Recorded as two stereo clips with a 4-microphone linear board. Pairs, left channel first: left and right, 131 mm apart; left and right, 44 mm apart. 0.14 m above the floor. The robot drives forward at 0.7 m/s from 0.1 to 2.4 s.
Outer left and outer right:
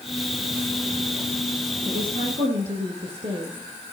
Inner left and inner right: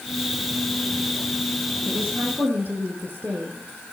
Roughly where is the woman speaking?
Right.